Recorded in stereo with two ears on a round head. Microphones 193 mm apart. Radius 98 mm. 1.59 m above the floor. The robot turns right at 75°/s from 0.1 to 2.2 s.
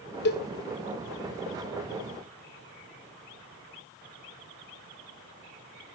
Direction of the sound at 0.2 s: 55° left (ahead or behind).